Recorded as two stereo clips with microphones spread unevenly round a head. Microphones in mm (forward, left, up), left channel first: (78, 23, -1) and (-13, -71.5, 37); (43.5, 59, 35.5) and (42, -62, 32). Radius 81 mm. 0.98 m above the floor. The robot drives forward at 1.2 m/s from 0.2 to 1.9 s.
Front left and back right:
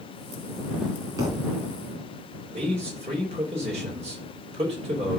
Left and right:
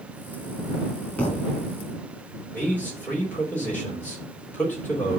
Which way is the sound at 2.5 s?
170° left.